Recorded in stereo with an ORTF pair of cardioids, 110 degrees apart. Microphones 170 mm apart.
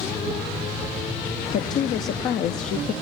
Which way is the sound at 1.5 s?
55° left.